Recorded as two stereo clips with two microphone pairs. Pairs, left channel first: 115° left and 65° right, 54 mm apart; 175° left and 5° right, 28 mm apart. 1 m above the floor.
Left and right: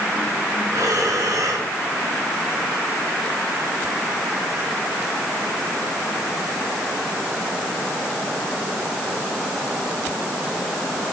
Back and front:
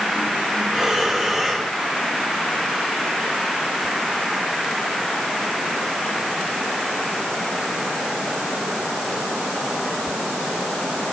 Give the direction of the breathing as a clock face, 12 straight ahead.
3 o'clock.